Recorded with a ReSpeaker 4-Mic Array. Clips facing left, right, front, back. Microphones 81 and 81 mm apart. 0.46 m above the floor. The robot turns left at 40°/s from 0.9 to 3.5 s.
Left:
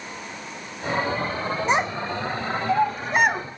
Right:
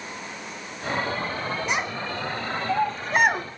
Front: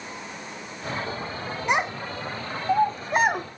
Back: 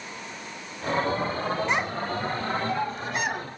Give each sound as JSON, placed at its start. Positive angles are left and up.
{"t": 1.7, "sound": "a child speaking", "azimuth_deg": 60, "distance_m": 0.7}